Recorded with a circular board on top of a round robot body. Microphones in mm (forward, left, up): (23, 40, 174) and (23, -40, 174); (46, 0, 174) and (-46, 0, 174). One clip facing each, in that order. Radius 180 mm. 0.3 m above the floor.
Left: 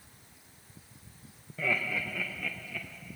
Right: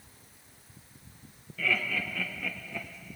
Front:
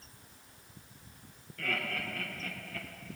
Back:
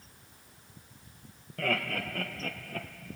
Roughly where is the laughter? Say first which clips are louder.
Right 1 dB, back 5 dB; behind left.